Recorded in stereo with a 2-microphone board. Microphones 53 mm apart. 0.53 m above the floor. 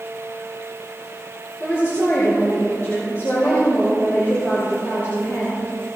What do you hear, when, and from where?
1.6 s a woman speaking: 45° left (ahead or behind), 7.5 m